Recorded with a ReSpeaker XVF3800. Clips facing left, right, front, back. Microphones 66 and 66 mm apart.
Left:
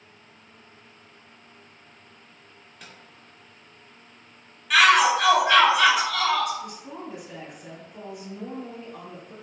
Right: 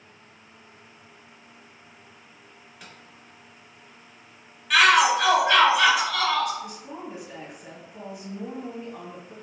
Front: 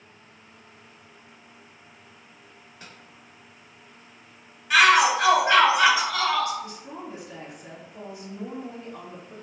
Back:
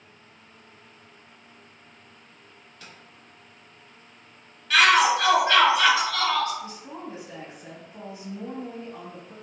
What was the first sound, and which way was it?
A microwave, straight ahead.